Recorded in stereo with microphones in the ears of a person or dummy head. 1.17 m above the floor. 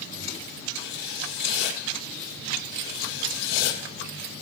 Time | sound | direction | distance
0.8 | writing | 65° left (ahead or behind) | 1.8 m